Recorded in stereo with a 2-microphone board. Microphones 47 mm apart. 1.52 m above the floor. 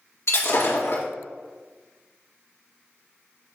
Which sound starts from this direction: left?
Breaking glass, at 0.3 s.